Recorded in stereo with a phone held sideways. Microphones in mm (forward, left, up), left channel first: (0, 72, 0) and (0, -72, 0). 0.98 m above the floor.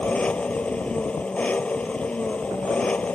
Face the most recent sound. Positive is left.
turn(degrees=10)  # may be behind; listen again after turning